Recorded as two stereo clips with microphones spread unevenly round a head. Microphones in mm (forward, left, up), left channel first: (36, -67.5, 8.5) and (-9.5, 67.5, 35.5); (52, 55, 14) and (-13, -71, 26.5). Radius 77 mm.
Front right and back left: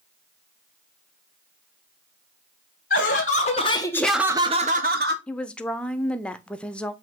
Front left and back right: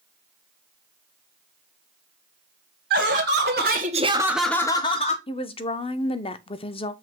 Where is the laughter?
110° right, 1.1 m; by 5.2 s 120° left, 0.9 m.